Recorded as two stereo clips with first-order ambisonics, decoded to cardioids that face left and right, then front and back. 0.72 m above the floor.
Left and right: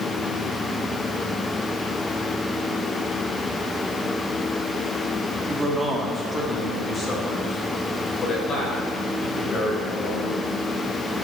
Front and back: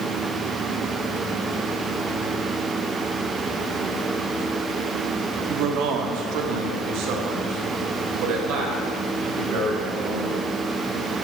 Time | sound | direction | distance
5.5 | a man speaking | 165° right | 0.9 m